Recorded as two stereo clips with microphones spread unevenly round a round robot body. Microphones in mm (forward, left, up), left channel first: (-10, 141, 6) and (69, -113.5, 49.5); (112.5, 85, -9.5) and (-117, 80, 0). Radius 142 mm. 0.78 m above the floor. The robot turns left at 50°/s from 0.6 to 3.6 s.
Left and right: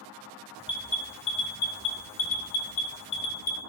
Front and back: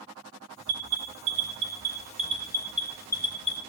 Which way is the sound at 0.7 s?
160° right.